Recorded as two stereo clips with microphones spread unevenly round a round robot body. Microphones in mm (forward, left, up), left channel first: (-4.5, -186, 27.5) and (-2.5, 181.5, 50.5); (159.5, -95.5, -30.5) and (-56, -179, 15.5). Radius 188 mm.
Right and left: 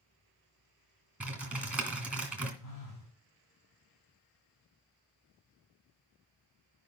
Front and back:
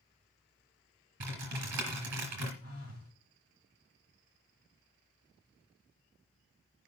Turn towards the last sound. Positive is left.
turn(degrees=-140)